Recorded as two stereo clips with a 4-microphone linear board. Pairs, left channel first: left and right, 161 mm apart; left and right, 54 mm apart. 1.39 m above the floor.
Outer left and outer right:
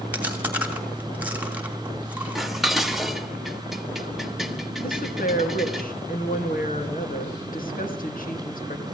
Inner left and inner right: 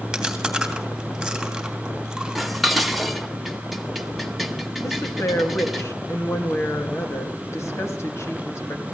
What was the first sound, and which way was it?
Chewing, 10° right (ahead or behind).